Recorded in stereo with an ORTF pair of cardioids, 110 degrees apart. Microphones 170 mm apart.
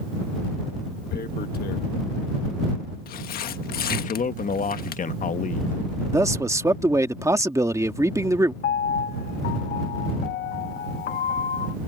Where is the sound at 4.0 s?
50° left.